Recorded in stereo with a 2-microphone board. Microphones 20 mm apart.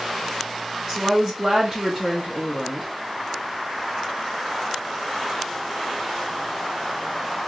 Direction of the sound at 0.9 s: 25° right (ahead or behind).